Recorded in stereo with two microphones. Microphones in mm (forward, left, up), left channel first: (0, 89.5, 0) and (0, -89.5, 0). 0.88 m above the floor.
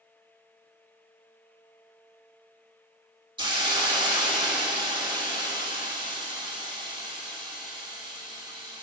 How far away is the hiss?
About 3 m.